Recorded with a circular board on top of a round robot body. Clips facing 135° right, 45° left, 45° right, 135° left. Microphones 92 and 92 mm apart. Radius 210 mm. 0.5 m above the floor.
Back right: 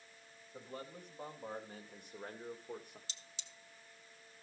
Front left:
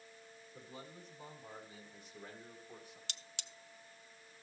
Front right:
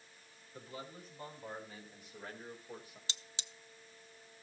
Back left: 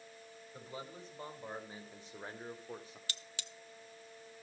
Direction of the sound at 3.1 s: 25° left.